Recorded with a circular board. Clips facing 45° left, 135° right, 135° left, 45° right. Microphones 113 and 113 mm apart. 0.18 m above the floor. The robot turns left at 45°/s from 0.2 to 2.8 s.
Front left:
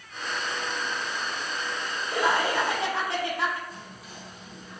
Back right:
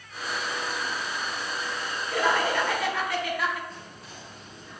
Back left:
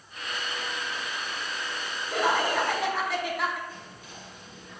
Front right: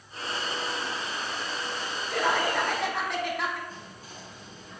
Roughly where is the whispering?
Ahead right.